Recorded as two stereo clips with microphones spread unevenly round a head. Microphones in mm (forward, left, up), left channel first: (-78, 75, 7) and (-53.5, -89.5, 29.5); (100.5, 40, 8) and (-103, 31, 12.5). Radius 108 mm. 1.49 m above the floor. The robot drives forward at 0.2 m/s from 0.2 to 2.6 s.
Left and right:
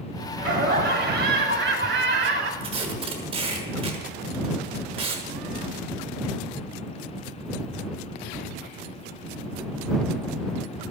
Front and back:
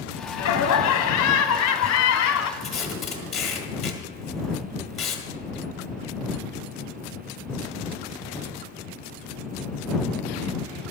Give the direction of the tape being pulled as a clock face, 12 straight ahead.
3 o'clock.